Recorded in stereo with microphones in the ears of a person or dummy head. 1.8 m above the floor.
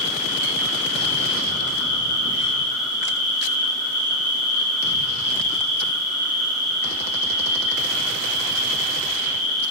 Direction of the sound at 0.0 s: 40° right (ahead or behind).